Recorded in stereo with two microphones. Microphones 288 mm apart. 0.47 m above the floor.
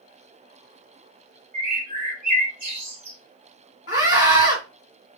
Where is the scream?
50° left (ahead or behind), 1.8 m.